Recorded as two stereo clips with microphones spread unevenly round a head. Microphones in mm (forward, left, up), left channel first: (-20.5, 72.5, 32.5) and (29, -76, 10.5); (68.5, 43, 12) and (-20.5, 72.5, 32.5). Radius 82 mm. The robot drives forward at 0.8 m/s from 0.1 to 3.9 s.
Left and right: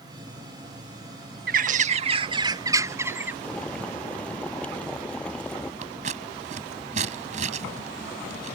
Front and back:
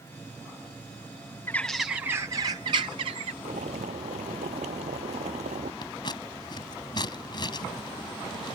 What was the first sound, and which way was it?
A bird, 105° right.